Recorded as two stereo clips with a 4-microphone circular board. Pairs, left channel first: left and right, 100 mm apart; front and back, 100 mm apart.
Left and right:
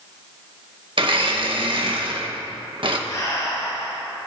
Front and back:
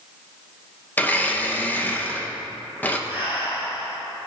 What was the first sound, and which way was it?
A blender, 70° right.